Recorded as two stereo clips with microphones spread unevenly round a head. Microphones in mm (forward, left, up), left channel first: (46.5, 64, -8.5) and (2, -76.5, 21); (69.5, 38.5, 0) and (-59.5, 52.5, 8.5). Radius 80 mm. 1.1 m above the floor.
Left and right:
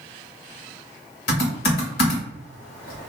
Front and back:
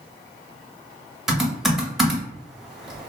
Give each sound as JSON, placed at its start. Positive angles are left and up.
{"t": 1.3, "sound": "typing on a keyboard", "azimuth_deg": 90, "distance_m": 1.0}